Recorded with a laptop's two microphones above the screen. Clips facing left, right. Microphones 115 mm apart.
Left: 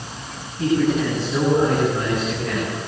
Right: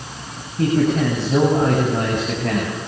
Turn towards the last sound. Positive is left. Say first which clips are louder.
# right 1 dB
turn(degrees=-60)  # may be behind; listen again after turning